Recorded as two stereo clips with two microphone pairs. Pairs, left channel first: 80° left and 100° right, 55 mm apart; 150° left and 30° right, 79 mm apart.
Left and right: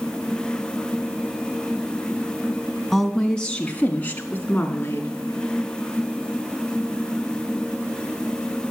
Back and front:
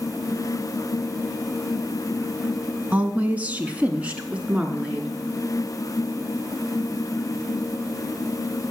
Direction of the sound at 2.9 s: 5° right.